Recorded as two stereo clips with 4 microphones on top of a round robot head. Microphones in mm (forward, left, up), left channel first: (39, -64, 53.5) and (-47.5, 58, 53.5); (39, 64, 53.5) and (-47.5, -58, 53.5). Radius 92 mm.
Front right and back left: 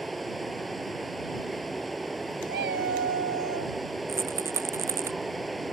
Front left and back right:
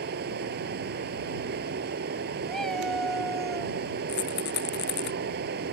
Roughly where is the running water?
Behind right.